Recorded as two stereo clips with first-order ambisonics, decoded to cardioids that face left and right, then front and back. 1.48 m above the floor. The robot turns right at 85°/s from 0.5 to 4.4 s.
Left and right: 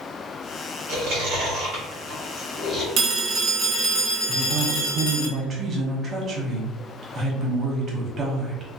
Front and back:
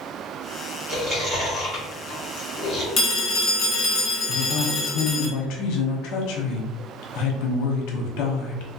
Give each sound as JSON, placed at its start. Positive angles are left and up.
{"t": 0.9, "sound": "chewing", "azimuth_deg": -120, "distance_m": 1.5}
{"t": 3.0, "sound": "a phone ringing", "azimuth_deg": -55, "distance_m": 0.7}
{"t": 4.3, "sound": "a woman speaking", "azimuth_deg": -35, "distance_m": 0.8}